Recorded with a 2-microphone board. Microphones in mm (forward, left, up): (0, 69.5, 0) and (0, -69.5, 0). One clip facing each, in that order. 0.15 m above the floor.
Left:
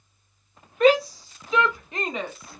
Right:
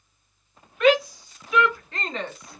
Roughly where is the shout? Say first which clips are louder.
Left 1 dB; left.